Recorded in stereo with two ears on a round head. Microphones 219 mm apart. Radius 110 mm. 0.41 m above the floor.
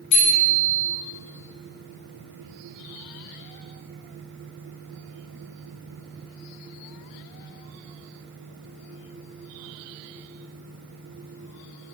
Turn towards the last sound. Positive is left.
turn(degrees=85)